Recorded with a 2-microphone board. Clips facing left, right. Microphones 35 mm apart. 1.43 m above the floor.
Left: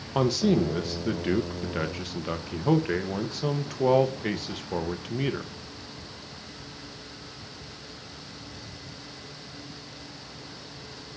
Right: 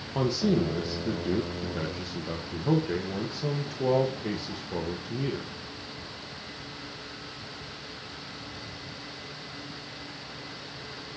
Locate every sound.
0.1 s a man speaking: 85° left, 1.6 m